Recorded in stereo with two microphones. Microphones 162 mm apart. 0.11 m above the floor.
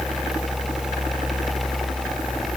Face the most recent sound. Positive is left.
No sound to turn to.